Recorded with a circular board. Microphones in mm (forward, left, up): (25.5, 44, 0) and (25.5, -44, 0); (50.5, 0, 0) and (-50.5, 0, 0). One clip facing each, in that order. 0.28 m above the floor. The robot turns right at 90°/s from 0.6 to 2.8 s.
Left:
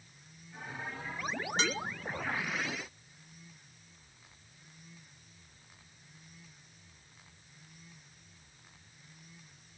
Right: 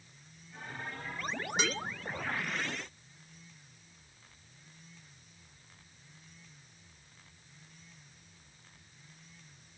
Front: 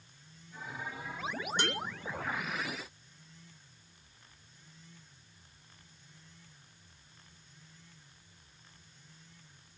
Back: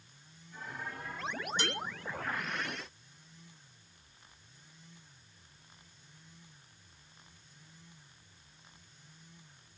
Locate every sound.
1.6 s dishes clattering: 15° right, 3 m; by 1.8 s 5° left, 3 m